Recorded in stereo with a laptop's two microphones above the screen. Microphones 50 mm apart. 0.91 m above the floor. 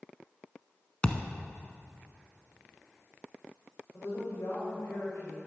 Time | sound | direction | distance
1.0 | a thud | 20° left (ahead or behind) | 1.0 m
3.9 | a woman speaking | 75° left (ahead or behind) | 4.5 m